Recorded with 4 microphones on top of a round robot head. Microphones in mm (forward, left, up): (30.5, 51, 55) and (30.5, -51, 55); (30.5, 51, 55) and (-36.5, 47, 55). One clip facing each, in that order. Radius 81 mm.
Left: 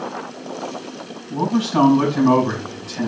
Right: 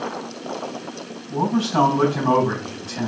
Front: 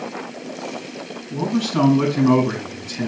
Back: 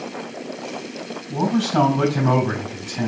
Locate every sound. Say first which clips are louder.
1.3 s a man speaking: left 1 dB, back 2 dB; 175° right, 4.5 m